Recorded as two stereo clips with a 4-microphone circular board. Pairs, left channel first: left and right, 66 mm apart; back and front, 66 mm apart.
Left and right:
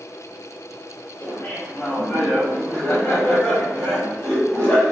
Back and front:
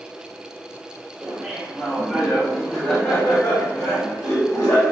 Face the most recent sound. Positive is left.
turn(degrees=150)